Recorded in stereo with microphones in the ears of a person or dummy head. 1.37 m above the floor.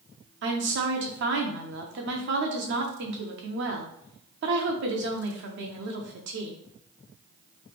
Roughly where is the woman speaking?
Right.